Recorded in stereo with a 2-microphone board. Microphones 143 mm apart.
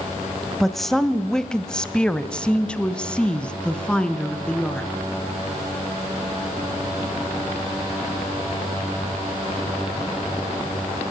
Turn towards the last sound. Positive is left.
turn(degrees=5)  # may be behind; listen again after turning